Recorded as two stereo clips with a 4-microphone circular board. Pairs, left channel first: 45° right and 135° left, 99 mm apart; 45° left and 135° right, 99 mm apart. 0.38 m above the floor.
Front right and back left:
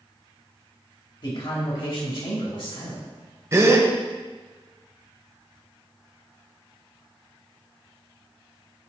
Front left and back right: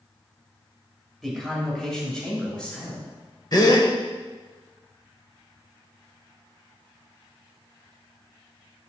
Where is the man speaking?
40° right, 1.6 m; by 3.0 s 35° right, 2.5 m.